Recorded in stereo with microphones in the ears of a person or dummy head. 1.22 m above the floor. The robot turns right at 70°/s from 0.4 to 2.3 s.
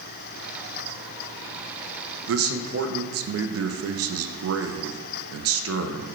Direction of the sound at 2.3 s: 65° right (ahead or behind).